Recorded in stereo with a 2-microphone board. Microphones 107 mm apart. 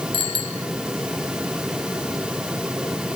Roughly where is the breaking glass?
I don't hear breaking glass.